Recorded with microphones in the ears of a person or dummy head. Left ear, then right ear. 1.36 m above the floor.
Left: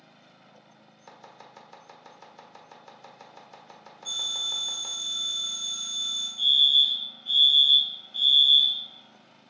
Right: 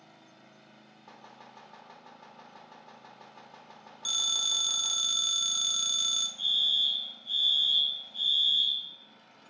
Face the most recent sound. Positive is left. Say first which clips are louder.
# left 9 dB
turn(degrees=20)  # may be behind; listen again after turning